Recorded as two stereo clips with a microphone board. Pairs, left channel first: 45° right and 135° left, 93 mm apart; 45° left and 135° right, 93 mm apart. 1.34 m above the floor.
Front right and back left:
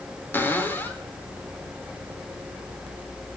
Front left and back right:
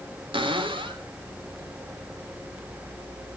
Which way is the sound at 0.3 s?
115° right.